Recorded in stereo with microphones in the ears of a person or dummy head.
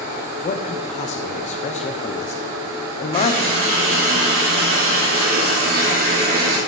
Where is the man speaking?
35° left (ahead or behind), 0.8 m.